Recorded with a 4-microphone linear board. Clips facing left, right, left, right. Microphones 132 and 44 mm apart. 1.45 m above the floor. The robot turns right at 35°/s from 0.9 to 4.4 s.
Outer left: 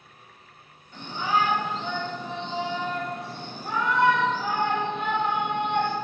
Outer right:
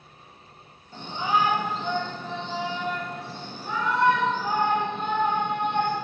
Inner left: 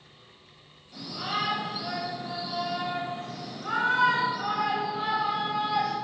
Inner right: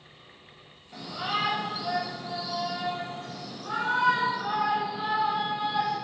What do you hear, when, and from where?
0.9 s a shout: 35° right, 4.5 m; by 6.0 s 85° left, 4.5 m